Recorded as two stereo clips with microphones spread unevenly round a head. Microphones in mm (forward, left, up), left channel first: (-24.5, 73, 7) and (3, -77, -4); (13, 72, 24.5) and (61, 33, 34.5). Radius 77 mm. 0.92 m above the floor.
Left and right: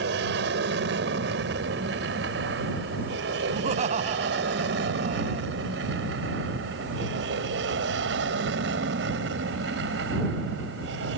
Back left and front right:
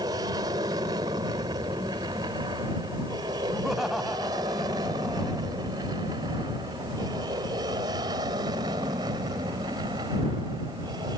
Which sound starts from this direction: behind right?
Laughter, at 3.5 s.